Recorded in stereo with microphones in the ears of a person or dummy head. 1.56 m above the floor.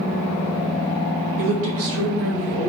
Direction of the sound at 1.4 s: 65° right (ahead or behind).